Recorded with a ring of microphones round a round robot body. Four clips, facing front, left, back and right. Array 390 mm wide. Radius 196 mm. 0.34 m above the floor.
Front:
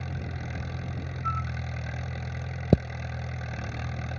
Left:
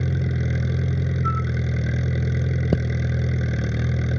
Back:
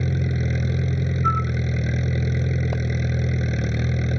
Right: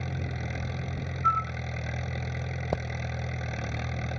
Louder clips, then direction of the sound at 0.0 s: Left 9 dB, back 12 dB; 140° left.